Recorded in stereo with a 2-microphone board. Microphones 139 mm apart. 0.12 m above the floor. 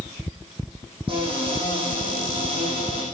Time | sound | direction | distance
1.1 | a cupboard door | 40° right (ahead or behind) | 6.5 m